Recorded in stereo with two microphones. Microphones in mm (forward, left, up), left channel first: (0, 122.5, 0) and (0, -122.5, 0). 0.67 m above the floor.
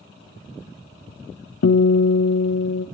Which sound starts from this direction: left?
A guitar, at 1.6 s.